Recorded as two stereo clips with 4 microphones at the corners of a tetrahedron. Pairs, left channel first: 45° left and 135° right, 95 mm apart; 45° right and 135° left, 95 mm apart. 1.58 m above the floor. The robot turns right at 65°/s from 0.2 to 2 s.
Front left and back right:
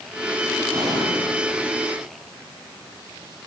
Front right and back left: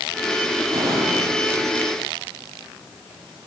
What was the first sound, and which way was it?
An explosion, straight behind.